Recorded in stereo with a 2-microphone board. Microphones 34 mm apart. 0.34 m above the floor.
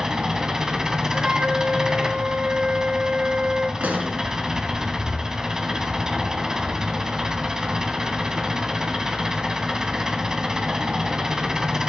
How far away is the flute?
About 1.4 m.